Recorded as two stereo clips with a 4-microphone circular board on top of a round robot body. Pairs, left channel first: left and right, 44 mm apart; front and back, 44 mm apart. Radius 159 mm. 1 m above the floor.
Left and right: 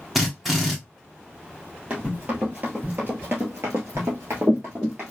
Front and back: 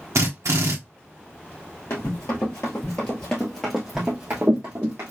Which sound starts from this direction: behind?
A drill, at 0.1 s.